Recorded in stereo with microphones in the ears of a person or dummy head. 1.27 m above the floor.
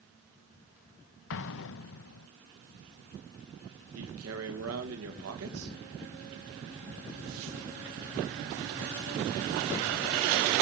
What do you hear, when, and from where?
1.3 s an explosion: 70° left (ahead or behind), 0.7 m
4.0 s a man speaking: 75° right (ahead or behind), 1.9 m